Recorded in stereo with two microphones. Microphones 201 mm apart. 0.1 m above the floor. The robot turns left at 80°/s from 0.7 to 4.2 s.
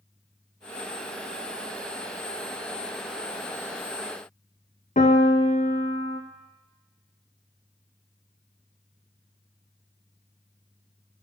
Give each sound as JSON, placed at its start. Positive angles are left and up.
{"t": 5.0, "sound": "a piano", "side_deg": 40, "distance_m": 1.1}